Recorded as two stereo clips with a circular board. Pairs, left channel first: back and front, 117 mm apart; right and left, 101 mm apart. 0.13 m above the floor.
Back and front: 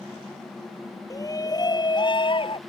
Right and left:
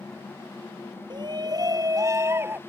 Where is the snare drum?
No snare drum in this recording.